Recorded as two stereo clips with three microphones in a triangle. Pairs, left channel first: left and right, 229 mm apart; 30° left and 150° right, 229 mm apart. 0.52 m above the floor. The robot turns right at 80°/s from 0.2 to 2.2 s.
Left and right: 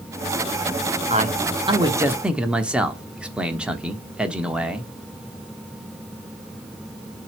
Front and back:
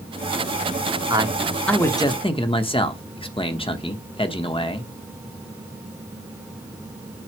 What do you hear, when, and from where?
1.1 s a man speaking: 100° right, 1.0 m; by 4.9 s 10° right, 1.0 m